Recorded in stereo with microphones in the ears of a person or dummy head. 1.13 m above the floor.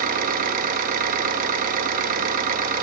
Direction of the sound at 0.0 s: 40° right (ahead or behind).